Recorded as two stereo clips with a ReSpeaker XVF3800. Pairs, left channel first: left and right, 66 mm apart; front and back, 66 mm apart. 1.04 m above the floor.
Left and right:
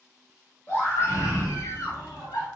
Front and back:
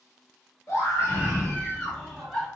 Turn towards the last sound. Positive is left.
turn(degrees=85)